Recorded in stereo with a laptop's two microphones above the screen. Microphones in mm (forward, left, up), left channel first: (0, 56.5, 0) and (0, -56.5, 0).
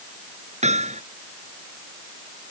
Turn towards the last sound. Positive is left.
turn(degrees=-75)  # may be behind; listen again after turning